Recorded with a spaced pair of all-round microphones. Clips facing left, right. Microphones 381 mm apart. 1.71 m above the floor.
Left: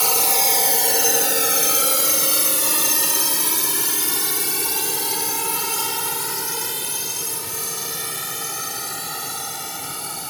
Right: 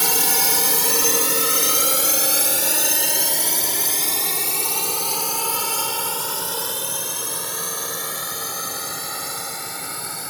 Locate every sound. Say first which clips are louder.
0.0 s a drone: left 1 dB; 30° right (ahead or behind); by 10.3 s 45° left (ahead or behind)